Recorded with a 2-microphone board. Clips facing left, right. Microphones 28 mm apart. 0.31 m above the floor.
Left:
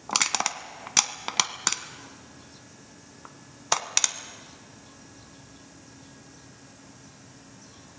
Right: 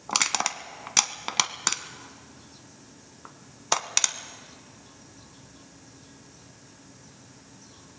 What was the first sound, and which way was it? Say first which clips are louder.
Crushing: even; 5° right (ahead or behind).